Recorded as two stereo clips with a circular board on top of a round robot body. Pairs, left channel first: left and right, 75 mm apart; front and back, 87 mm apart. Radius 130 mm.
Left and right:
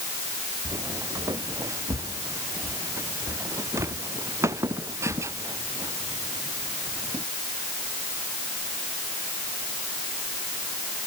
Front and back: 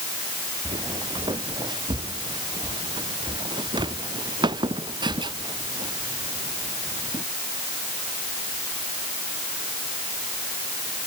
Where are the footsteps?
140° right; by 7.2 s 145° right.